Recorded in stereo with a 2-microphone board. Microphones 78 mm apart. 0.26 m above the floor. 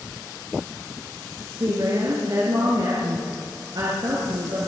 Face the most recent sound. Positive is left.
turn(degrees=-55)  # may be behind; listen again after turning